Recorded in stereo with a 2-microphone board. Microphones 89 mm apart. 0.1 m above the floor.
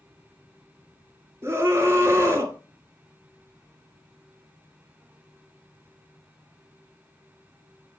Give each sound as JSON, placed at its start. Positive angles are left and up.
{"t": 1.4, "sound": "a scream", "side_deg": -30, "distance_m": 1.5}